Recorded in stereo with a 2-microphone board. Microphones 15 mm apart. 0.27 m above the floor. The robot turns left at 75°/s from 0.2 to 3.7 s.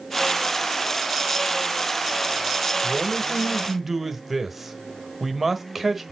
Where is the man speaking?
20° right (ahead or behind), 1.4 m; by 6.1 s 10° right (ahead or behind), 1.4 m.